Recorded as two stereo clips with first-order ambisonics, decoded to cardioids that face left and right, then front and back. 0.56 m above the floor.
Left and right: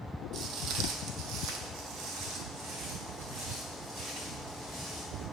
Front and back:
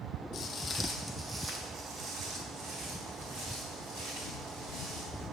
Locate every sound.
0.3 s footsteps: 45° right, 0.8 m; by 5.2 s 145° right, 3.5 m